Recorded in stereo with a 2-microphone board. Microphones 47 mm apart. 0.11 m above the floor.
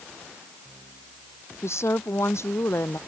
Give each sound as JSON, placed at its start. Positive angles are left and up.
{"t": 1.6, "sound": "a woman speaking", "side_deg": 70}